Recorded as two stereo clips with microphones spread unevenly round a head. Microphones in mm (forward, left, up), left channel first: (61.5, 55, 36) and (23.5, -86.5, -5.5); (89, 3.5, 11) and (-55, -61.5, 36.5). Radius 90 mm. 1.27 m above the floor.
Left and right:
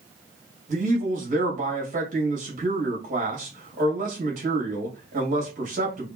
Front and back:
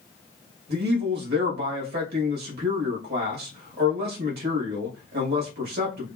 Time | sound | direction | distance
0.7 | a man speaking | 140° right | 1.8 m